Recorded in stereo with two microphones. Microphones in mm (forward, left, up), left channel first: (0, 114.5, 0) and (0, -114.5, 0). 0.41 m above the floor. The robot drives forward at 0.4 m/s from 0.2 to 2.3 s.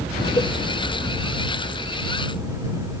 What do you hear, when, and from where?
0.4 s a cowbell: 20° left (ahead or behind)